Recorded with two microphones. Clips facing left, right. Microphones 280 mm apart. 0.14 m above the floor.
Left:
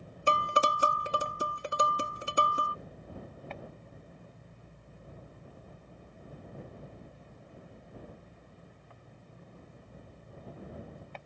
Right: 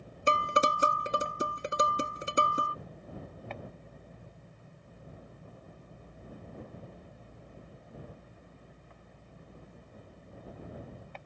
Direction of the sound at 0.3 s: 25° right (ahead or behind).